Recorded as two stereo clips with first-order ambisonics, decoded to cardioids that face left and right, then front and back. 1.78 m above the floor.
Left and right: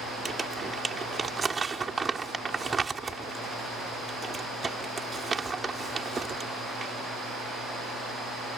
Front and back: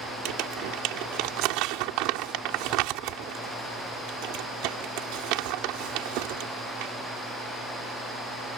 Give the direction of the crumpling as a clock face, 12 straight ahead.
5 o'clock.